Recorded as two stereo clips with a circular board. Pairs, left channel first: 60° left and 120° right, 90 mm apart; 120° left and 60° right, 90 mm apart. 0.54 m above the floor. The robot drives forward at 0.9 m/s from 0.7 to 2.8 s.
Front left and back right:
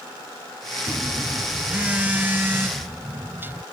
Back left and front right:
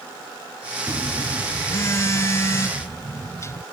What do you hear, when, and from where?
0.9 s a phone buzzing: 150° left; by 3.6 s 175° left